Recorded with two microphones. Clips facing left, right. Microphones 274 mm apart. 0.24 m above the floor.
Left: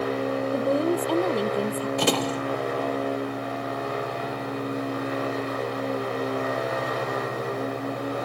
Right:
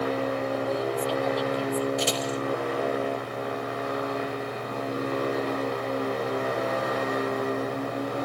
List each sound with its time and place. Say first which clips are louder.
0.5 s a woman speaking: left 5 dB; 55° left (ahead or behind); by 1.9 s 60° left (ahead or behind)
2.0 s a door slam: left 4 dB; 65° left (ahead or behind)